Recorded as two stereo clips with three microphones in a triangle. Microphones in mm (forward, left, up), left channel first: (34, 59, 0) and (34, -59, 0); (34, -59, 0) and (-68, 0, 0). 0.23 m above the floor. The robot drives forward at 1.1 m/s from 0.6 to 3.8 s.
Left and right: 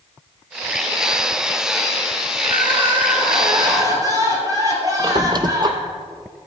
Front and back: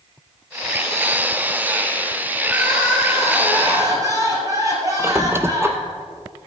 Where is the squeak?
140° right, 0.8 m.